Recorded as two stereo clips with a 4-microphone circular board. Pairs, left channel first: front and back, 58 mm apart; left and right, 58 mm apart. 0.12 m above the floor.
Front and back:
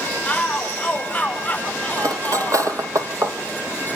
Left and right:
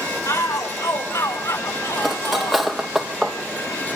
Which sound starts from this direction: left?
A shout, at 0.2 s.